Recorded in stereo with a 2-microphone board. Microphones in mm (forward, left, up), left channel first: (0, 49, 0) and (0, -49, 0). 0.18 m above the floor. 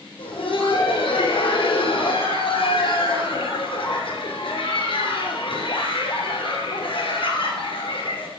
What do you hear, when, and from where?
0.2 s laughter: 65° left (ahead or behind), 3 m